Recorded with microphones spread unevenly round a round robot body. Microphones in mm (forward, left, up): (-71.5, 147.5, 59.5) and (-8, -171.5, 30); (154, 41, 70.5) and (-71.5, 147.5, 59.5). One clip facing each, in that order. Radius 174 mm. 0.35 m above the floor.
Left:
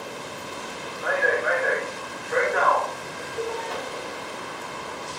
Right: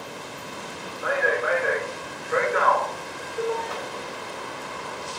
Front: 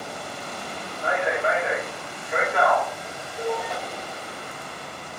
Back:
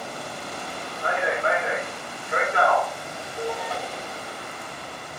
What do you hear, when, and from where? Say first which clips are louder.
1.0 s a man speaking: even, front 1 dB; 130° right, 1.4 m